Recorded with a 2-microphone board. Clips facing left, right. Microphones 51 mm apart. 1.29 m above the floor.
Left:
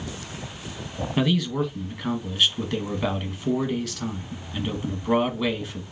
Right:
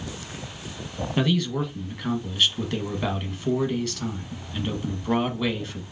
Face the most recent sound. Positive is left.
turn(degrees=0)  # may be behind; listen again after turning